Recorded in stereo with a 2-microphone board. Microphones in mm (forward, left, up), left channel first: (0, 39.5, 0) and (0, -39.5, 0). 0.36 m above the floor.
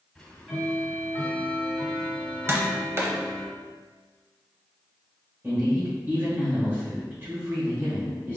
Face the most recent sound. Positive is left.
turn(degrees=-30)  # may be behind; listen again after turning